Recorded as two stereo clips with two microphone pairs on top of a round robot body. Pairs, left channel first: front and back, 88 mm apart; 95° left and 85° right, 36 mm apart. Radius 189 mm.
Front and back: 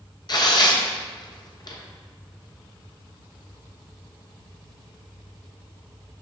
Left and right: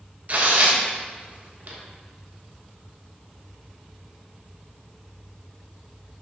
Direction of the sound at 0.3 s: 40° right.